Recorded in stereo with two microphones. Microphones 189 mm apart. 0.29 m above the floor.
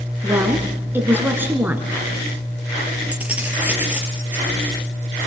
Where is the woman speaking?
10° right (ahead or behind), 4 m.